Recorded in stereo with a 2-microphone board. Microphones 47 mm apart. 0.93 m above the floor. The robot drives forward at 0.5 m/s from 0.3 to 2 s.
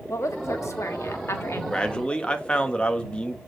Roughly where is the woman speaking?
Left.